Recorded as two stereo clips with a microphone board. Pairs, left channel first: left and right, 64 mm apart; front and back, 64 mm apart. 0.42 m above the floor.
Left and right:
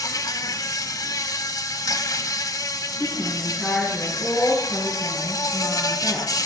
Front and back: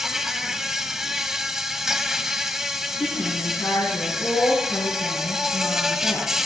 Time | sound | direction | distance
0.0 | an insect | 100° left | 0.9 m
3.0 | a woman speaking | 5° left | 5 m